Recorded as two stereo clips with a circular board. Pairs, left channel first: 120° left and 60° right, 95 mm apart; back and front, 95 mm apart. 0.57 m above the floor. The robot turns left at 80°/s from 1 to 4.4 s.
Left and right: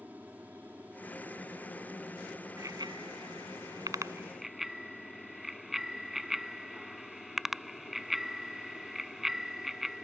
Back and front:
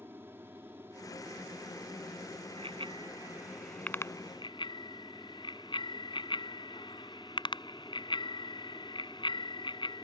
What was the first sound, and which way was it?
An aircraft, 15° right.